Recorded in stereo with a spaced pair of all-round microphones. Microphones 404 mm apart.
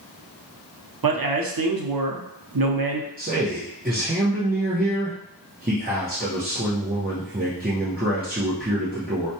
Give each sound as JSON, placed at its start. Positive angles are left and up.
{"t": 1.0, "sound": "a man speaking", "side_deg": -55, "distance_m": 0.6}
{"t": 3.2, "sound": "a man speaking", "side_deg": -20, "distance_m": 0.8}